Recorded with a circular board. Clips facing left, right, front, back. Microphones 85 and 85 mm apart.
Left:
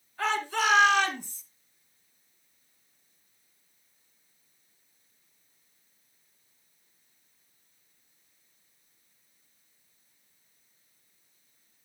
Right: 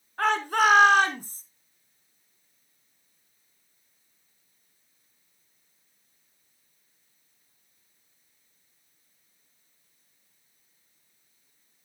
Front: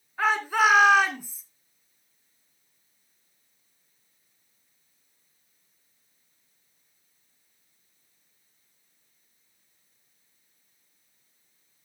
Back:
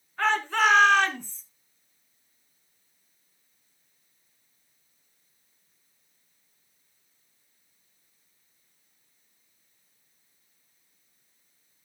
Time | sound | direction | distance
0.2 | a shout | 80° right | 2.5 m